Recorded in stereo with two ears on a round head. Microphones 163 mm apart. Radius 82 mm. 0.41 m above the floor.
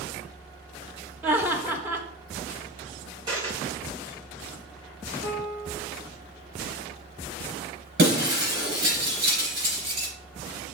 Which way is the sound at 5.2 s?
5° right (ahead or behind).